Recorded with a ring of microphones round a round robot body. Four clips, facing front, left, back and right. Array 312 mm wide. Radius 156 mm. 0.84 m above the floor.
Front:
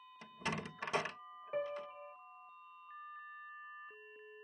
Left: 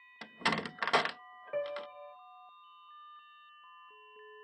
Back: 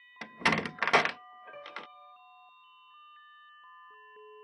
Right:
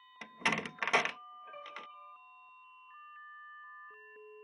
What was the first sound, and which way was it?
A door slam, 170° left.